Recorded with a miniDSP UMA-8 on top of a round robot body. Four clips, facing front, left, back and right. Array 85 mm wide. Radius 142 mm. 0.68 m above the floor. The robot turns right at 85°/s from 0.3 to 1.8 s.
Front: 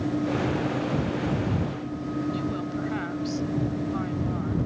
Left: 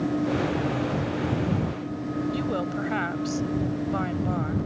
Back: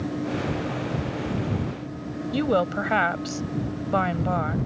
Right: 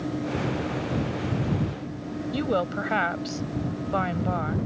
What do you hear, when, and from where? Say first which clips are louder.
2.3 s a woman speaking: right 2 dB, back 7 dB; 160° right